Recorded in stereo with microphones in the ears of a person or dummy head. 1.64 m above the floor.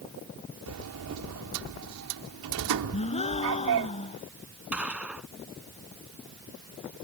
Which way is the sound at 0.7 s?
70° right (ahead or behind).